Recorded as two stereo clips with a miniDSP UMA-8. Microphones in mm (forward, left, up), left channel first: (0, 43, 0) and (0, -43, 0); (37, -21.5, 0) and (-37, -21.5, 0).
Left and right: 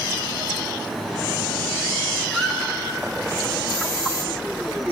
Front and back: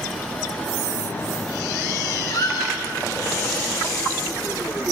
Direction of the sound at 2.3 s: Straight ahead.